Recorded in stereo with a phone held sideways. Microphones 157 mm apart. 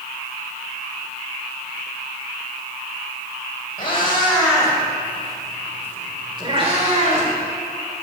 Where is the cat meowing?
35° left (ahead or behind), 2.5 m; by 7.3 s 55° right (ahead or behind), 2 m.